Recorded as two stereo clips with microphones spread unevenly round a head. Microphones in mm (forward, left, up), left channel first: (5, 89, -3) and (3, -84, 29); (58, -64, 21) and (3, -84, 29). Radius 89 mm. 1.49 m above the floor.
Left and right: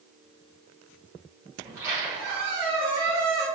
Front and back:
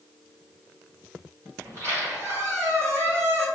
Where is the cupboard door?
I don't hear a cupboard door.